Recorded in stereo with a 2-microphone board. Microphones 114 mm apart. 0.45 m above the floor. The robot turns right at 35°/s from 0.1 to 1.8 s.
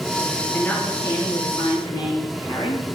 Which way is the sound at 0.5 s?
15° left.